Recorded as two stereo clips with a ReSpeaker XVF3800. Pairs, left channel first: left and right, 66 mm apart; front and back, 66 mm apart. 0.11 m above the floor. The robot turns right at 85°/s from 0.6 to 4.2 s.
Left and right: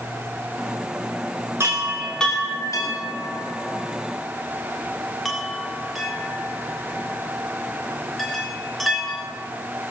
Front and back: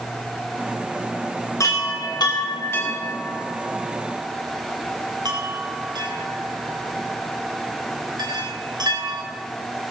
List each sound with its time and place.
1.6 s a chime: 45° right, 2.5 m; by 9.2 s straight behind, 2.5 m